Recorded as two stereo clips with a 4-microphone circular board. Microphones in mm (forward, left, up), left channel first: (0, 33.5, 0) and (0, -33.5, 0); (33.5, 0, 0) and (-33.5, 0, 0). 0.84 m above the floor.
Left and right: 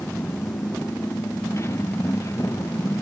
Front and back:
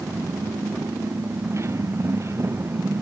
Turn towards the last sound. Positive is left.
turn(degrees=135)